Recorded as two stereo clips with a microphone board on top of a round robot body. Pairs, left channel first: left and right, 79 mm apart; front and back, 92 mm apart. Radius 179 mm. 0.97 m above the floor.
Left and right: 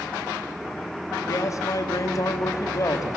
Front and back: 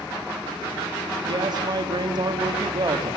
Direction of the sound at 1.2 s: 140° left.